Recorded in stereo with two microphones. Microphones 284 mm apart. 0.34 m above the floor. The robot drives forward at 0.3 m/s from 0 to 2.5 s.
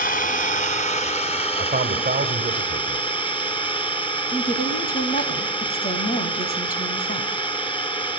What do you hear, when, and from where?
0.0 s an engine running: 30° left (ahead or behind), 1.0 m; by 8.2 s 15° left (ahead or behind), 1.6 m
1.6 s a man speaking: 35° right (ahead or behind), 1.4 m; by 3.1 s 30° right (ahead or behind), 1.5 m
4.3 s a woman speaking: 30° left (ahead or behind), 2 m